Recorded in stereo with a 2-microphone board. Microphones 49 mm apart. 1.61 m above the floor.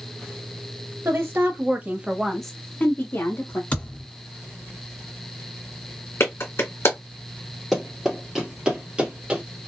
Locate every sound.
1.1 s a woman speaking: 55° right (ahead or behind), 1.2 m; by 3.6 s 55° left (ahead or behind), 1.2 m
3.7 s a thud: 25° left (ahead or behind), 1.9 m
6.2 s a clap: 60° left (ahead or behind), 1.3 m
7.7 s running footsteps: centre (ahead or behind), 1.7 m; by 9.4 s 25° right (ahead or behind), 1.7 m